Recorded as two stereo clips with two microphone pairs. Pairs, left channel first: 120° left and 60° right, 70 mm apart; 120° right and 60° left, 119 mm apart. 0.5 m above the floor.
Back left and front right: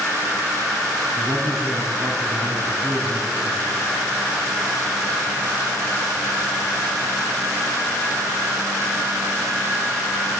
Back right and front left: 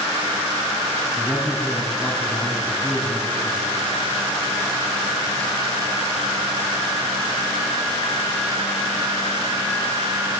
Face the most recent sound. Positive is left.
turn(degrees=-30)